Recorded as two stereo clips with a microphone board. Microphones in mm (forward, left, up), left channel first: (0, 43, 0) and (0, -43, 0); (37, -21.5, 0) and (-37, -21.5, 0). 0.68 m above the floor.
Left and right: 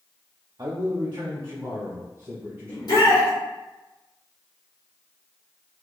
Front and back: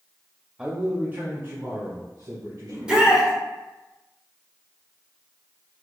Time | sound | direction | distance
0.6 | a man speaking | 110° right | 0.7 m
2.7 | a shout | 100° left | 1.3 m